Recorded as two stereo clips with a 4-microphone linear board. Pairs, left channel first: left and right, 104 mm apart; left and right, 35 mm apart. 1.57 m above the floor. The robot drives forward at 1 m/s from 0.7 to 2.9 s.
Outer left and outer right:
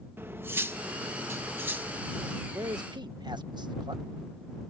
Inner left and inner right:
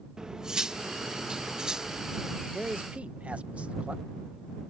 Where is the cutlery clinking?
20° right (ahead or behind); by 2.4 s 15° right (ahead or behind).